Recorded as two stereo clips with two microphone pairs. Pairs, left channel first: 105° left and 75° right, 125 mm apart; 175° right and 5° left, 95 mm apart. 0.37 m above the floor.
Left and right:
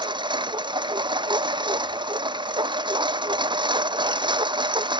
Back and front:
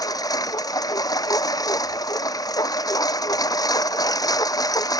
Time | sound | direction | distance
0.0 | a lawn mower | 125° right | ?